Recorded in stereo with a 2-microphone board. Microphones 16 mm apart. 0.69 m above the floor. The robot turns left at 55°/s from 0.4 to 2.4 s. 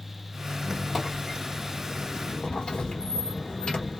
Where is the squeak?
150° right, 1.0 m; by 4.0 s 105° left, 1.0 m.